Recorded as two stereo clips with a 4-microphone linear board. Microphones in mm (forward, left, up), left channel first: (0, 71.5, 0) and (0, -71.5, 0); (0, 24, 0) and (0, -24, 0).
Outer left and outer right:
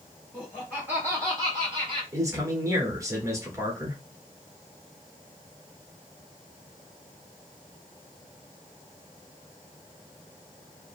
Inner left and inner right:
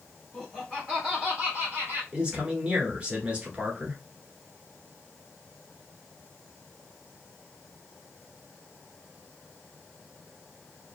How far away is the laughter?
About 1.7 m.